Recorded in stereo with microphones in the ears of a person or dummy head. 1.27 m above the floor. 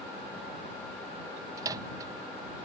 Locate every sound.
1.6 s a microwave: 20° right (ahead or behind)